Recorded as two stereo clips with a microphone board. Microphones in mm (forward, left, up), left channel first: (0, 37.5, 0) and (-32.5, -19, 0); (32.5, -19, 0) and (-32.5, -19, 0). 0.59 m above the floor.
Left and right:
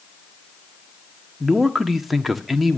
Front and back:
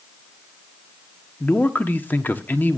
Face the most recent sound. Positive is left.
turn(degrees=-35)